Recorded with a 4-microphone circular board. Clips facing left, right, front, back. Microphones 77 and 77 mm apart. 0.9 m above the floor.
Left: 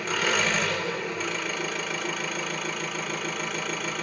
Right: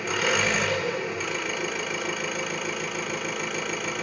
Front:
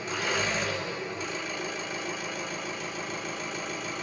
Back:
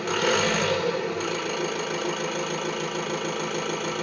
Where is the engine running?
Straight behind, 3 m.